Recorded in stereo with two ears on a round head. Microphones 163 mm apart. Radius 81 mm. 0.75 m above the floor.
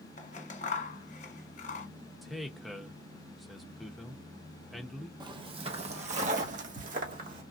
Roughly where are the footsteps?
Right.